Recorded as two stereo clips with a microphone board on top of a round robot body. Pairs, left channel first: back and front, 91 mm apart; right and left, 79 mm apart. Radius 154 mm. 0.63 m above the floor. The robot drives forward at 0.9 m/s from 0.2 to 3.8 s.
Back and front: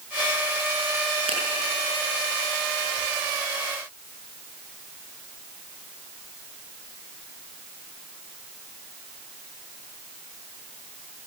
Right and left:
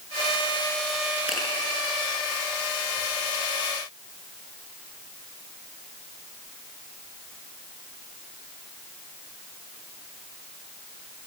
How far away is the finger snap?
About 7 m.